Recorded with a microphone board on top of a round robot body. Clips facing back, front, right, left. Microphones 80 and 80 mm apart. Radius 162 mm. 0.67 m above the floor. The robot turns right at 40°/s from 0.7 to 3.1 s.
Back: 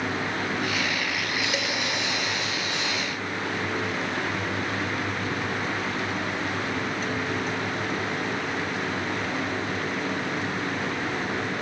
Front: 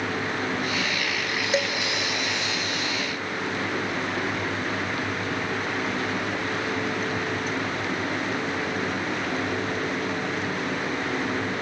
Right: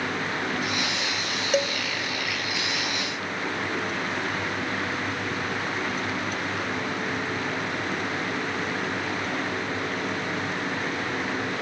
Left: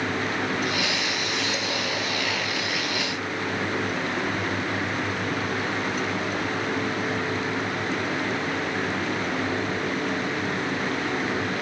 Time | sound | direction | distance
1.5 | dishes clattering | 65° right | 2.5 m